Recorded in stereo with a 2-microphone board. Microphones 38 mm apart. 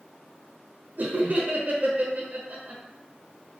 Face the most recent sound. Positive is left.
turn(degrees=-45)  # may be behind; listen again after turning